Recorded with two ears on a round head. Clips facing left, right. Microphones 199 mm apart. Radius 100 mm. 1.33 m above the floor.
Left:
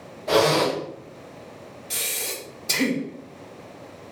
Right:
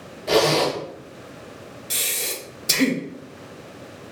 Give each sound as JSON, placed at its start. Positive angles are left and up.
{"t": 0.3, "sound": "a zipper", "side_deg": -35, "distance_m": 1.6}
{"t": 1.9, "sound": "breathing", "side_deg": -20, "distance_m": 0.6}